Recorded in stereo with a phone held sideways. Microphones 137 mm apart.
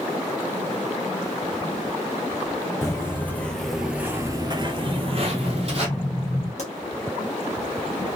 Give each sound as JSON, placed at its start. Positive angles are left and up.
{"t": 2.8, "sound": "footsteps", "side_deg": 20, "distance_m": 1.4}
{"t": 4.9, "sound": "an explosion", "side_deg": 25, "distance_m": 1.2}
{"t": 6.6, "sound": "a pop", "side_deg": 55, "distance_m": 1.1}